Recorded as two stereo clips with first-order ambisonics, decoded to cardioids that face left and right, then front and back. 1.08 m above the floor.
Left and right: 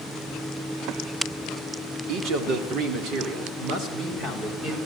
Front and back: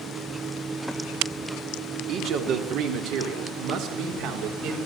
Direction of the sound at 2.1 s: 130° right.